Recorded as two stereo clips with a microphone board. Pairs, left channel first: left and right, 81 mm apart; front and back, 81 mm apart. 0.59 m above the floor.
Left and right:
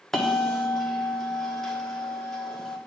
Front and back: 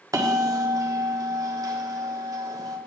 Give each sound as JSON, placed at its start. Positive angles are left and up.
{"t": 0.1, "sound": "a bell", "azimuth_deg": 175, "distance_m": 1.2}